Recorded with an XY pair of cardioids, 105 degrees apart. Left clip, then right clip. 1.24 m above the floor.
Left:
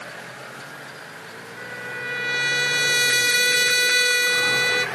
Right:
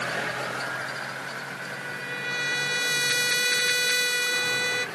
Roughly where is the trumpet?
Ahead left.